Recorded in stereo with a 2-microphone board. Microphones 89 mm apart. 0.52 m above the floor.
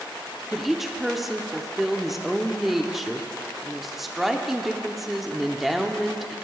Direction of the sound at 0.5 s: Centre (ahead or behind).